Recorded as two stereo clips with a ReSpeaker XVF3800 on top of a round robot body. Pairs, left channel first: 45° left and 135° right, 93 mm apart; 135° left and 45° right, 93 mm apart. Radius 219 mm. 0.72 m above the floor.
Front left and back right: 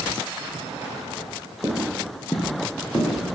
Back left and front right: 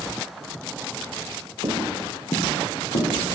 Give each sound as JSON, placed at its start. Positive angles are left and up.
{"t": 1.6, "sound": "footsteps", "azimuth_deg": -75, "distance_m": 0.8}